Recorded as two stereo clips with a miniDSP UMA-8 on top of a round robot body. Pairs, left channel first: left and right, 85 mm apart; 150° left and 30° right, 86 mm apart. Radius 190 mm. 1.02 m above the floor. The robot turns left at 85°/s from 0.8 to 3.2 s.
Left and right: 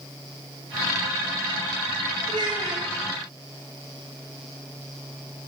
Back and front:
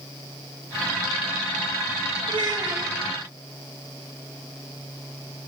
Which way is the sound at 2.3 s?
45° right.